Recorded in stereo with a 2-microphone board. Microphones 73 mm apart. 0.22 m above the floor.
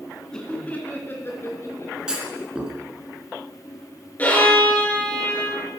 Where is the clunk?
10° right (ahead or behind), 2.5 m.